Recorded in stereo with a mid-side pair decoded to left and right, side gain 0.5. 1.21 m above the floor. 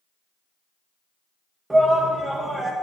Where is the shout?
15° right, 1.2 m.